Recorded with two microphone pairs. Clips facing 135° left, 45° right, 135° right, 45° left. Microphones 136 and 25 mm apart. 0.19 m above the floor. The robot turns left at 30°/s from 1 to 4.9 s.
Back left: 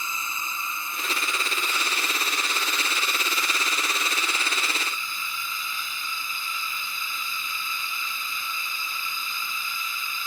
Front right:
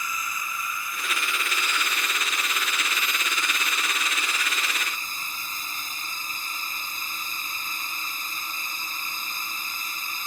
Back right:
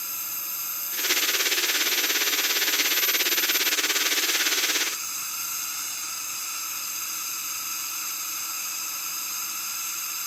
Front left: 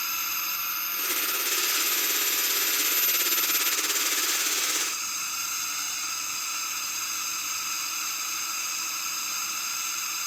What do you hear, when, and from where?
0.0 s a drone: 85° left; by 10.3 s 30° right